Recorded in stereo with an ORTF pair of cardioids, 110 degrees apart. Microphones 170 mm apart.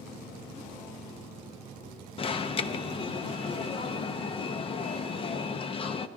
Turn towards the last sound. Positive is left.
turn(degrees=30)